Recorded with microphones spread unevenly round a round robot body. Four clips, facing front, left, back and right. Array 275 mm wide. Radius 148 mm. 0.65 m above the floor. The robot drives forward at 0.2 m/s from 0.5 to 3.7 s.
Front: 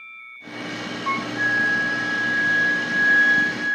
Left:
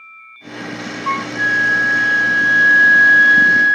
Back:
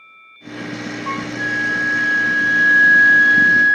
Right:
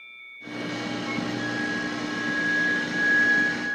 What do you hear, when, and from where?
1.1 s a flute: 65° left, 0.6 m; by 3.8 s 120° left, 0.6 m